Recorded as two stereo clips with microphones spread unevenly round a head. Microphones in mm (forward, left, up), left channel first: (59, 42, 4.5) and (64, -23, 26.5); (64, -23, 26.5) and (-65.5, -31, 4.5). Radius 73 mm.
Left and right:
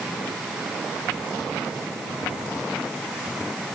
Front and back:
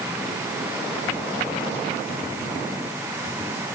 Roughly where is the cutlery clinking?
No cutlery clinking in this recording.